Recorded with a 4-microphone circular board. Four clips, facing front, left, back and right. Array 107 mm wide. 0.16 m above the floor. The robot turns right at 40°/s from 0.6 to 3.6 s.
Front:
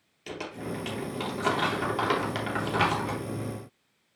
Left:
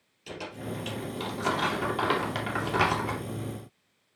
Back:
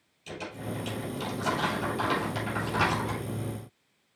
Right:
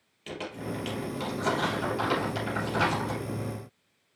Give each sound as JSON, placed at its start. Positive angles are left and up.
{"t": 0.3, "sound": "crumpling", "azimuth_deg": -25, "distance_m": 3.0}